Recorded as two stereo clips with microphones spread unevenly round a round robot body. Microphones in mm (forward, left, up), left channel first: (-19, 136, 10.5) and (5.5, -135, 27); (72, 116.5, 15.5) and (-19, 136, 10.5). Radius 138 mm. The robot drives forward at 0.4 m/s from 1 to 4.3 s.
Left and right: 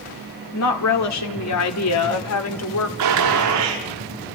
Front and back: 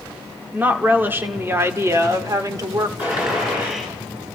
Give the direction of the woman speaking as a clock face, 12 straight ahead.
9 o'clock.